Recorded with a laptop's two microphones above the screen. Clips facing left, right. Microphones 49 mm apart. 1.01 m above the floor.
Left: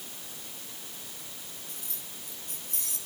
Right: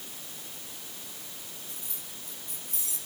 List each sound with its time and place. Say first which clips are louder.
1.7 s keys jangling: even; 65° left (ahead or behind), 8 m